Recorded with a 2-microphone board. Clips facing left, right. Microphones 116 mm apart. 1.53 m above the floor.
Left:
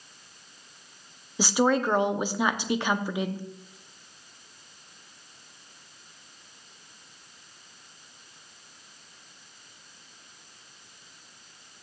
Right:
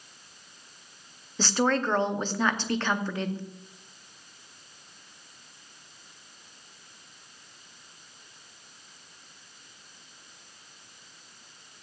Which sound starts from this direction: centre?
A woman speaking, at 1.4 s.